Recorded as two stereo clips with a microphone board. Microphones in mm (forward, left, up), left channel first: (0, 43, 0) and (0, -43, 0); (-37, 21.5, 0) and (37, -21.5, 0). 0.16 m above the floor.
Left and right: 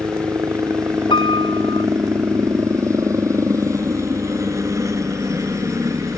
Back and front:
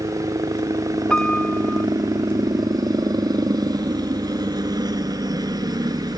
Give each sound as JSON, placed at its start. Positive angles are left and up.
{"t": 0.0, "sound": "a helicopter", "azimuth_deg": -45}
{"t": 1.1, "sound": "a piano", "azimuth_deg": 70}